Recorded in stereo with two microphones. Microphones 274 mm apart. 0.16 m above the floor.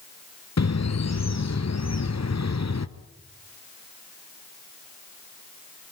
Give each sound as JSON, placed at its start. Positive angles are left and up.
{"t": 0.6, "sound": "a bird", "side_deg": 65, "distance_m": 0.8}